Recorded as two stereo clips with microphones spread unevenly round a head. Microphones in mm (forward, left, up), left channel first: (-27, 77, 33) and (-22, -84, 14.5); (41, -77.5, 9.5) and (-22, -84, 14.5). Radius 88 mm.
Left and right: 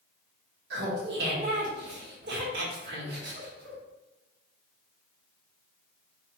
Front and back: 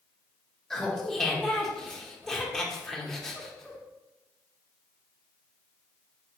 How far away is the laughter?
About 1.2 m.